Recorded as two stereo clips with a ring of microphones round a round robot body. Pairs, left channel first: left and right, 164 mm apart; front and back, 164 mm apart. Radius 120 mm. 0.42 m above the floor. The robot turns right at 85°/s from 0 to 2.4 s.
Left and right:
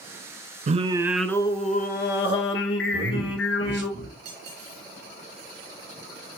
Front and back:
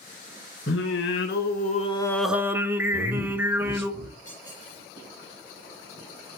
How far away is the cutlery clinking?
About 5.5 m.